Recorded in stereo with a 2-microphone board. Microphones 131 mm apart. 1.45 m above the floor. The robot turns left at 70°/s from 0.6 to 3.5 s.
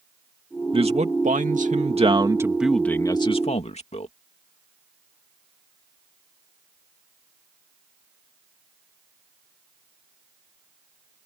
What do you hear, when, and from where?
0.7 s a man speaking: 40° right; by 4.1 s 125° left